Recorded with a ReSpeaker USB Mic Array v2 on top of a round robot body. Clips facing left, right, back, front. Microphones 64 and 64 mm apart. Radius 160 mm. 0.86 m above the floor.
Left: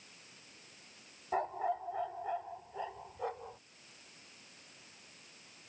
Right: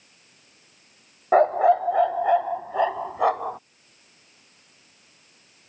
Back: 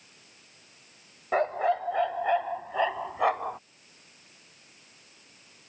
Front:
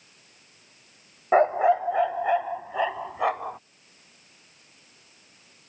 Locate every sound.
1.3 s a dog barking: 65° right; by 3.6 s 90° right